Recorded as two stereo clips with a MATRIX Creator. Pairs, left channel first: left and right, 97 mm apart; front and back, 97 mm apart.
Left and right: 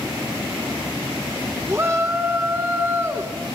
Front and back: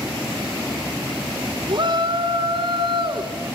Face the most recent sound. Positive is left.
turn(degrees=-150)